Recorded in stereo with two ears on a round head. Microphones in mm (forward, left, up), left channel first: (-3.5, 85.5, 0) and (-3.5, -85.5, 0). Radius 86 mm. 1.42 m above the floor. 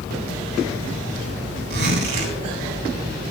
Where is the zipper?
60° right (ahead or behind), 8.5 m.